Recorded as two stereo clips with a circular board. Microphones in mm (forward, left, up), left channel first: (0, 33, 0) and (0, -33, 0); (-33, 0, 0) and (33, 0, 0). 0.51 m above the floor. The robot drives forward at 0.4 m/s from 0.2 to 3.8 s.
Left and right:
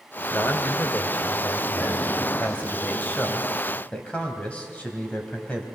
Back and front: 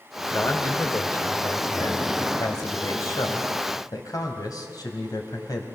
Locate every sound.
0.3 s a man speaking: 140° left, 1.5 m; by 5.7 s 160° left, 2.5 m